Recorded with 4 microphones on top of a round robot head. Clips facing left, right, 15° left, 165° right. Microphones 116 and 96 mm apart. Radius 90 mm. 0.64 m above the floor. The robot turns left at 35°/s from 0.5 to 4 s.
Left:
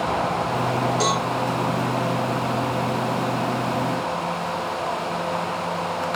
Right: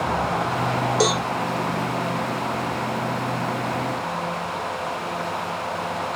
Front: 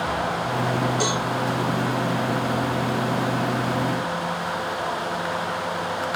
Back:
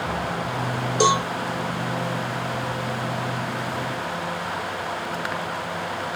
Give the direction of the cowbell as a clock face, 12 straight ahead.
4 o'clock.